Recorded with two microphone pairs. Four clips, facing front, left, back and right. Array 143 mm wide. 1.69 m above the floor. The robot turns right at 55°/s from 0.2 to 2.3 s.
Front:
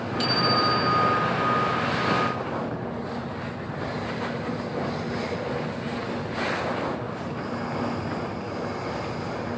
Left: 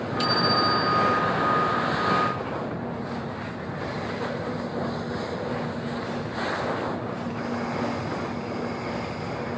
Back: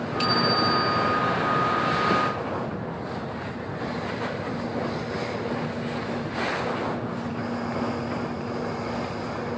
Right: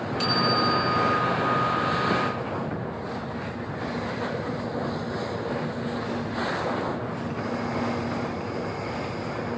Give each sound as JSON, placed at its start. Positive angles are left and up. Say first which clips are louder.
{"t": 0.2, "sound": "a bicycle bell", "louder": "left 1 dB, even", "azimuth_deg": 150, "distance_m": 8.0}